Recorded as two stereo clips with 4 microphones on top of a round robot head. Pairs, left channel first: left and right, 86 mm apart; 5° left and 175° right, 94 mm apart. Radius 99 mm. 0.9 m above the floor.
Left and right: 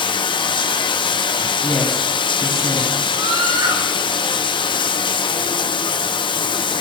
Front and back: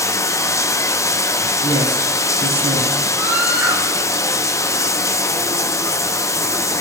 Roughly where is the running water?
Ahead left.